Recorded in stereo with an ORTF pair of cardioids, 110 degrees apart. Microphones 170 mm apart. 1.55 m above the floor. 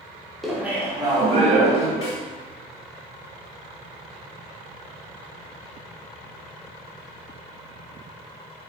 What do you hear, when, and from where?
0.4 s laughter: straight ahead, 0.7 m; by 1.9 s 45° right, 1.2 m
2.0 s a snare drum: 35° left, 1.0 m